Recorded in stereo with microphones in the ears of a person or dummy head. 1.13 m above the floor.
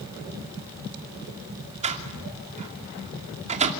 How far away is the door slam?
About 2.5 m.